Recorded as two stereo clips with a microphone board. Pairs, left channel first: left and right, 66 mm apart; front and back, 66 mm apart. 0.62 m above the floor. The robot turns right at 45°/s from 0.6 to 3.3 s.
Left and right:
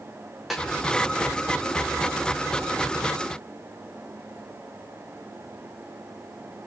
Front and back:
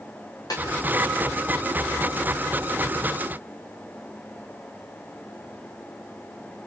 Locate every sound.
0.5 s a snare drum: straight ahead, 4 m